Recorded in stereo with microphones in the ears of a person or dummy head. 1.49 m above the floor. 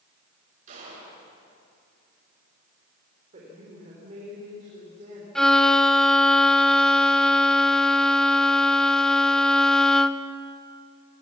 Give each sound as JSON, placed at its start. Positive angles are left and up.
{"t": 0.7, "sound": "a gunshot", "side_deg": -45, "distance_m": 9.5}
{"t": 3.3, "sound": "a woman speaking", "side_deg": -40, "distance_m": 5.0}
{"t": 5.3, "sound": "a violin", "side_deg": 5, "distance_m": 0.8}